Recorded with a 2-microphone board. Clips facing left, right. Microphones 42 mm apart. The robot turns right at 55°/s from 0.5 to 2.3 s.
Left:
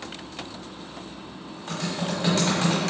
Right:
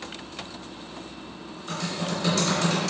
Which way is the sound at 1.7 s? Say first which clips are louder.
Left 1 dB; 50° left (ahead or behind).